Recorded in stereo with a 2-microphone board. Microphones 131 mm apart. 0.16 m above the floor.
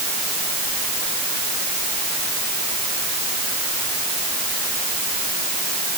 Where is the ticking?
No ticking in this recording.